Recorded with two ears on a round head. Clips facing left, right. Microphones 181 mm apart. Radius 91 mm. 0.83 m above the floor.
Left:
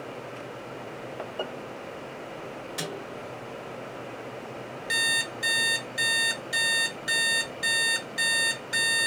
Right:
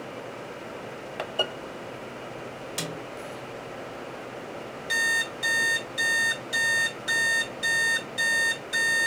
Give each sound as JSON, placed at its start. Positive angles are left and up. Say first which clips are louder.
{"t": 2.8, "sound": "a snare drum", "louder": "even", "side_deg": -35, "distance_m": 2.5}
{"t": 4.9, "sound": "an alarm clock", "louder": "right 1 dB", "side_deg": 5, "distance_m": 1.5}